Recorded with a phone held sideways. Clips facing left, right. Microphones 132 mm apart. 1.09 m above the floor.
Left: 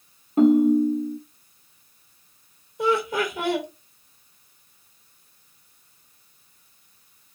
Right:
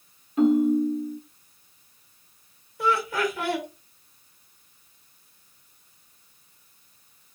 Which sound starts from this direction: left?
A ringtone, at 0.4 s.